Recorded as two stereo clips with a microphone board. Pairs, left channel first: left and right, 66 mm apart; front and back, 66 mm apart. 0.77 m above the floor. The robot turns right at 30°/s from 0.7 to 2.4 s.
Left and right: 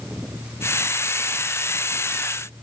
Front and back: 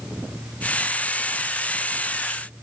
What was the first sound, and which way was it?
Only background noise.